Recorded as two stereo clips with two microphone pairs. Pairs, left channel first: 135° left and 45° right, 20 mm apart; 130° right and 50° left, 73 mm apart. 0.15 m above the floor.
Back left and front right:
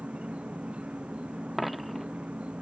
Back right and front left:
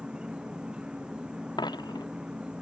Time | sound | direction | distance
0.0 | an insect | 30° right | ?
1.6 | a dropped coin | 135° right | ?